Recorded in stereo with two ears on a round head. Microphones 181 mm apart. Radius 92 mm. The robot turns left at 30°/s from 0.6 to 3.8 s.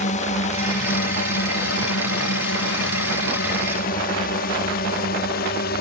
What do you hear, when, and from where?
0.0 s a drone: 40° left (ahead or behind); by 5.8 s 50° left (ahead or behind)